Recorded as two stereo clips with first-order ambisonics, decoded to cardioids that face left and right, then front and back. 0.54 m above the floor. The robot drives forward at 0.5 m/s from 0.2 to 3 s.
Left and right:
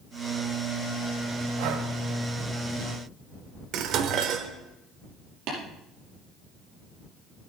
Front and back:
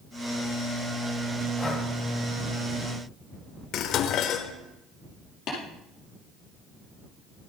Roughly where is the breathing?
Right.